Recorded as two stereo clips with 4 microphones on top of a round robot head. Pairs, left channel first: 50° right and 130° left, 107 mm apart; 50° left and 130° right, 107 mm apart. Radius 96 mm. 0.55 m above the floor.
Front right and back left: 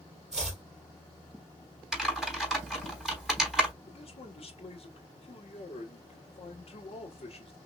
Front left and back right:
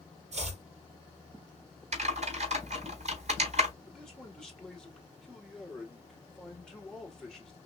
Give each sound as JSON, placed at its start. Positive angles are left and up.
{"t": 0.3, "sound": "chopping", "azimuth_deg": -145, "distance_m": 3.5}
{"t": 1.9, "sound": "typing on a keyboard", "azimuth_deg": -145, "distance_m": 3.5}
{"t": 3.8, "sound": "a man speaking", "azimuth_deg": -35, "distance_m": 2.5}